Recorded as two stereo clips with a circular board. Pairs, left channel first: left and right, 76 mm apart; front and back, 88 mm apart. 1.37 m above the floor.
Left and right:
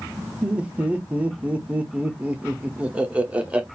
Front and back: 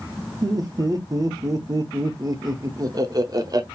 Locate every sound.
0.4 s laughter: 160° right, 0.6 m